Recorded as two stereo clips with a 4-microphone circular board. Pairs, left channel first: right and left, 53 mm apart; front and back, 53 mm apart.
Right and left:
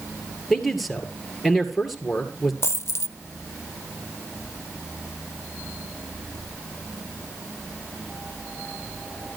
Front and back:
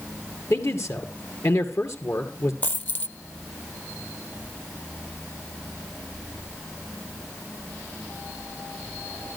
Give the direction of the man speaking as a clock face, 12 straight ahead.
12 o'clock.